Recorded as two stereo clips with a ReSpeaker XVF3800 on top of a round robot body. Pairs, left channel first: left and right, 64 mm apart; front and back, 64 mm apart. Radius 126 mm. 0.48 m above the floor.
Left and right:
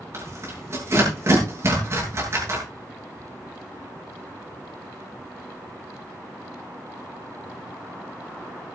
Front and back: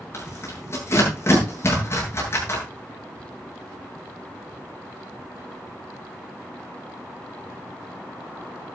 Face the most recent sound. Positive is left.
turn(degrees=-45)